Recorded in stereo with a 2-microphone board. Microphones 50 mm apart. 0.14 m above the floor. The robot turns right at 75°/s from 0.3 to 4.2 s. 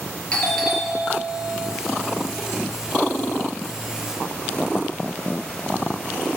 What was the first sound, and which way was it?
A doorbell, 155° left.